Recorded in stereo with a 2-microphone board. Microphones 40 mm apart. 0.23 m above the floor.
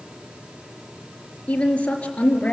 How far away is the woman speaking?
About 4 m.